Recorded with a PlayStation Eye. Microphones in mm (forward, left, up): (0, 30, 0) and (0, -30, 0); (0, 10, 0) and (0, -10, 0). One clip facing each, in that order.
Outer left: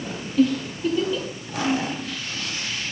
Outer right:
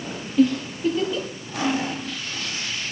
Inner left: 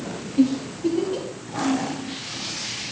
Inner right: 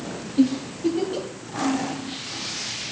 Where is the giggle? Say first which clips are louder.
Outer right 1 dB, even; 10° right (ahead or behind), 2.5 m.